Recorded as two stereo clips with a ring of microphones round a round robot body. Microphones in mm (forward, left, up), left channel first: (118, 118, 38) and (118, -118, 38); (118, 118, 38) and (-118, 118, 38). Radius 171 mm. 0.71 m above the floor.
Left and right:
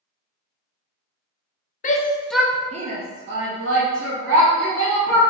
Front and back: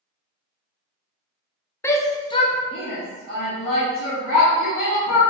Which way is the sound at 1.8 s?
75° left.